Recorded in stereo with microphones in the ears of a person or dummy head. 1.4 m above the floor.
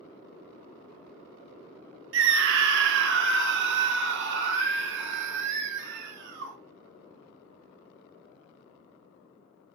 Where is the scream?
65° right (ahead or behind), 1.7 m.